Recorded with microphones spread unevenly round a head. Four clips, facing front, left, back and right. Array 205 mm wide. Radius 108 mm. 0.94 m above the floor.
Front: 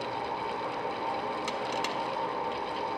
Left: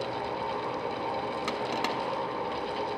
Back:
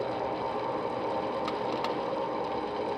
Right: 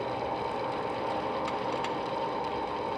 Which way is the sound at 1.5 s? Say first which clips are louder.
Left 1 dB, back 2 dB; 110° left.